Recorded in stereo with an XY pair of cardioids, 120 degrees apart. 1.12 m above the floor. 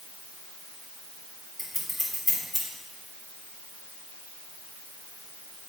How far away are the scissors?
About 3 m.